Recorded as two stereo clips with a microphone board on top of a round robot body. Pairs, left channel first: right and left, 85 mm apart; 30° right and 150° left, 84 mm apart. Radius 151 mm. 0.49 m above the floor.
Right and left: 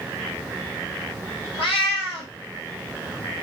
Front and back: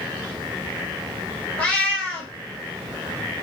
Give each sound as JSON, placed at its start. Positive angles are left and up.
{"t": 1.6, "sound": "a cat meowing", "azimuth_deg": -100, "distance_m": 1.4}